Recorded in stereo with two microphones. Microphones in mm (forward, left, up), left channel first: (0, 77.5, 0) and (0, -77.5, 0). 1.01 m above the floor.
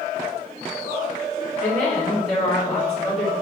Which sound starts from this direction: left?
A woman speaking, at 1.6 s.